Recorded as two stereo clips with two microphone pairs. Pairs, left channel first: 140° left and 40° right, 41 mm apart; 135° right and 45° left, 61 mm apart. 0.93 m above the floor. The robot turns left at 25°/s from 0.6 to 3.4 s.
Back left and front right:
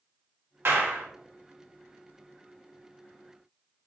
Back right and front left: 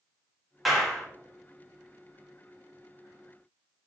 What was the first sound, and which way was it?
A clap, 45° right.